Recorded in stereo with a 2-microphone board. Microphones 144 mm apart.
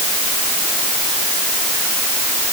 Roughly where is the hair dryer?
I don't hear a hair dryer.